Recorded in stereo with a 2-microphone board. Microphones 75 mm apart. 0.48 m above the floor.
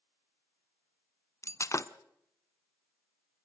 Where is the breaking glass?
40° left (ahead or behind), 0.9 m.